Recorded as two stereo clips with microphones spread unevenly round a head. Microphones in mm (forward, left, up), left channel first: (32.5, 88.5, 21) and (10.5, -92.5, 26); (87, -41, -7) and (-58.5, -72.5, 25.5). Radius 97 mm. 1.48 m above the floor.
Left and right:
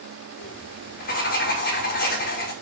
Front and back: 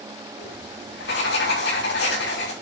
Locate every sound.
0.4 s writing: 40° left, 5.5 m